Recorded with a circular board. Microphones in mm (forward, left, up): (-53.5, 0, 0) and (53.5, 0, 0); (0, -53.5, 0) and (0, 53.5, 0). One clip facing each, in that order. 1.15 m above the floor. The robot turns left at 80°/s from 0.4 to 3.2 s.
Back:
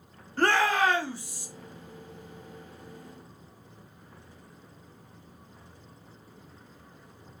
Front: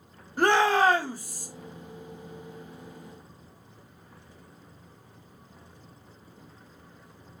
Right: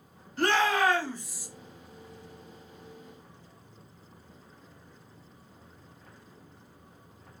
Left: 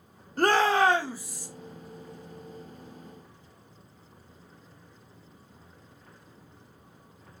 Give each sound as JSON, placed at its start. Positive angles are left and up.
{"t": 0.4, "sound": "a shout", "azimuth_deg": 70, "distance_m": 0.9}